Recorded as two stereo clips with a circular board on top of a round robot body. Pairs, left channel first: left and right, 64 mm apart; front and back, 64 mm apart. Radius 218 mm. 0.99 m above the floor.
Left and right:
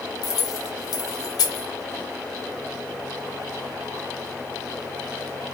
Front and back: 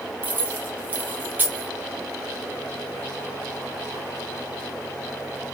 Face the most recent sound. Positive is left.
turn(degrees=115)